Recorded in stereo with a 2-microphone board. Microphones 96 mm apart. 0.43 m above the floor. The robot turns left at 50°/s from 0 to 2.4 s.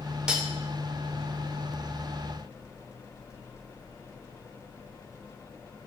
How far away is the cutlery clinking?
About 0.5 m.